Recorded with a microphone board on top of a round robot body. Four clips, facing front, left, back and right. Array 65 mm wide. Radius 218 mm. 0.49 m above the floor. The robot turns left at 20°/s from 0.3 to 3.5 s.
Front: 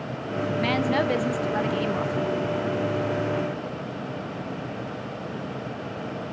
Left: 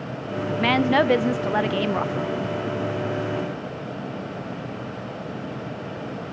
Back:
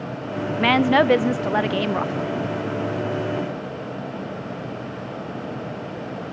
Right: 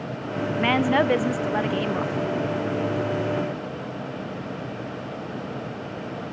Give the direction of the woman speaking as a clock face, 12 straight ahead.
6 o'clock.